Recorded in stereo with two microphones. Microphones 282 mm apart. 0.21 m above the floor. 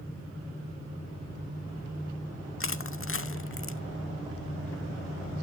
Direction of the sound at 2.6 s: 50° left (ahead or behind).